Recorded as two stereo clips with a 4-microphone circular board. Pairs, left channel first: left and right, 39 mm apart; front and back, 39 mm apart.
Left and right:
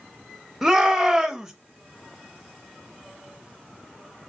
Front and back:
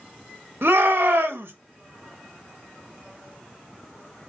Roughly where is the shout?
Behind.